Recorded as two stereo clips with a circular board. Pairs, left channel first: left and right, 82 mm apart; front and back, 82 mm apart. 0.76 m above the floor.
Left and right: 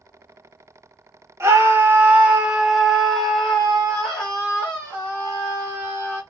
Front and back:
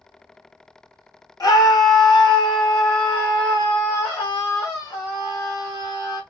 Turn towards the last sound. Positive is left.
turn(degrees=25)